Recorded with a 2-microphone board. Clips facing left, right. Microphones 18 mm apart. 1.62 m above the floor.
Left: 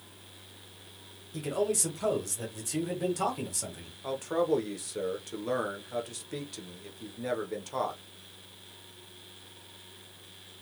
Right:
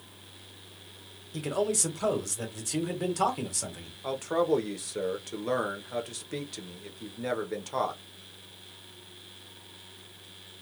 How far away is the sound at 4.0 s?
About 0.6 m.